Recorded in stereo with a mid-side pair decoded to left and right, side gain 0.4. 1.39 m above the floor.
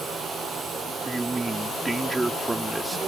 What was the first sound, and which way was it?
A man speaking, 20° right.